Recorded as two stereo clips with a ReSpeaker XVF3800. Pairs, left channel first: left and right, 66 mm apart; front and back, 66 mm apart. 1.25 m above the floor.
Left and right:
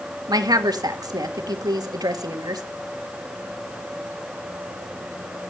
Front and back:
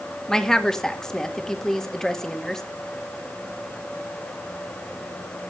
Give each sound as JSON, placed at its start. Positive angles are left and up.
{"t": 0.3, "sound": "a woman speaking", "azimuth_deg": -80, "distance_m": 2.0}